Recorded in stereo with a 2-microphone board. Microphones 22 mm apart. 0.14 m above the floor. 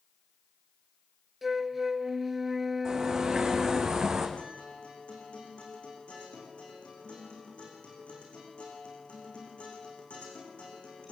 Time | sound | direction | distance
1.4 | a flute | 5° right (ahead or behind) | 0.6 m
2.9 | a bird | 30° right (ahead or behind) | 5.5 m
4.4 | a guitar | 75° left (ahead or behind) | 8.5 m